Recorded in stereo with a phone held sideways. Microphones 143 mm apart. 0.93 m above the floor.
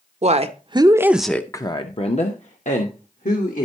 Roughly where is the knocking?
No knocking in this recording.